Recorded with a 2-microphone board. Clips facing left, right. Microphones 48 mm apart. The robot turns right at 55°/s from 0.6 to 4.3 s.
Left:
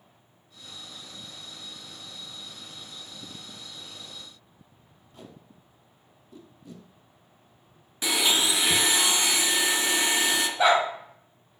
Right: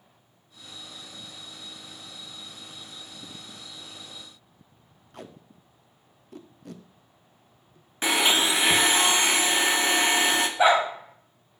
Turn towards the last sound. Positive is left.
turn(degrees=-20)  # may be behind; listen again after turning